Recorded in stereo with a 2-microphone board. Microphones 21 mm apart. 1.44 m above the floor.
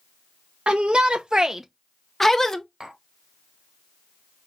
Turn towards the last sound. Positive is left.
turn(degrees=-35)  # may be behind; listen again after turning